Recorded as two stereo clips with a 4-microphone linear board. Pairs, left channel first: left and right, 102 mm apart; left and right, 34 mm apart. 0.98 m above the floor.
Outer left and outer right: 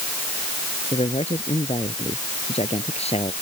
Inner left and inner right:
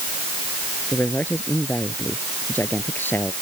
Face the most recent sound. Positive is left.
turn(degrees=80)